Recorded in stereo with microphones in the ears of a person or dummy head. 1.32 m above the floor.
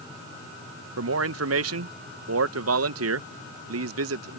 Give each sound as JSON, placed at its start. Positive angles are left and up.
{"t": 1.0, "sound": "a man speaking", "side_deg": -75}